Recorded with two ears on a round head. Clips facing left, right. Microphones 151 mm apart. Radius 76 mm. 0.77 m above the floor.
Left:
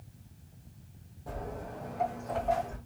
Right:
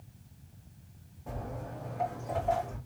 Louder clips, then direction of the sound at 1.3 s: Left 1 dB; 10° left (ahead or behind).